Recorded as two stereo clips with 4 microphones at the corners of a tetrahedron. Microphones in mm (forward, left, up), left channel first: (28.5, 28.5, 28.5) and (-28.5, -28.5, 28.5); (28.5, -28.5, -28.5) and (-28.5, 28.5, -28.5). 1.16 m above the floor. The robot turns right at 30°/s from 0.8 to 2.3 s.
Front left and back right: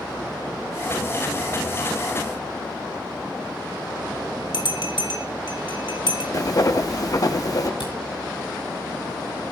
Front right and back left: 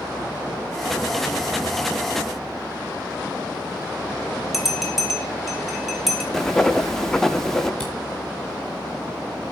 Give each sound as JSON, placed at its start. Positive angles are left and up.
{"t": 4.5, "sound": "a bell", "azimuth_deg": 50, "distance_m": 2.0}
{"t": 6.3, "sound": "writing", "azimuth_deg": 40, "distance_m": 0.9}
{"t": 7.8, "sound": "a camera shutter", "azimuth_deg": 35, "distance_m": 5.0}